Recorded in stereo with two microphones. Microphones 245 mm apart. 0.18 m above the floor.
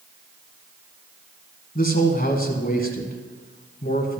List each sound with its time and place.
1.8 s a man speaking: 35° left (ahead or behind), 1.5 m